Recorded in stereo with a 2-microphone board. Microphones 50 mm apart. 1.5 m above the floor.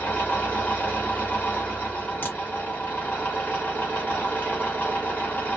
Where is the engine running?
35° left (ahead or behind), 1.6 m.